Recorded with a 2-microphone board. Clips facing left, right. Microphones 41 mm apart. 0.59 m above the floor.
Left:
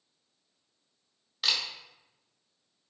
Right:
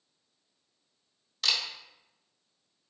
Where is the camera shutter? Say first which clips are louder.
Even; 10° left (ahead or behind), 1.0 m.